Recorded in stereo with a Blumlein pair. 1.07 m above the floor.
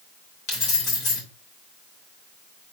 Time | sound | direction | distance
0.5 | keys jangling | 45° left | 3.5 m